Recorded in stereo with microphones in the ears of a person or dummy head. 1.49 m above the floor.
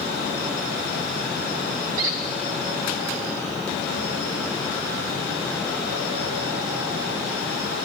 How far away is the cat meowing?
I don't hear a cat meowing.